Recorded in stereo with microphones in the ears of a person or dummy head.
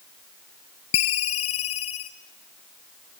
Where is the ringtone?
30° left (ahead or behind), 0.5 m.